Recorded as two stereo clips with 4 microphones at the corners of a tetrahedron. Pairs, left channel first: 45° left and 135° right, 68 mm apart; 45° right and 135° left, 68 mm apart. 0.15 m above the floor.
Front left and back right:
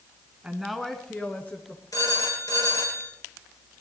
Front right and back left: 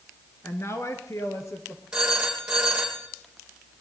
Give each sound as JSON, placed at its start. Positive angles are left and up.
{"t": 0.4, "sound": "a woman speaking", "azimuth_deg": -70, "distance_m": 1.4}
{"t": 1.9, "sound": "a phone ringing", "azimuth_deg": 60, "distance_m": 3.0}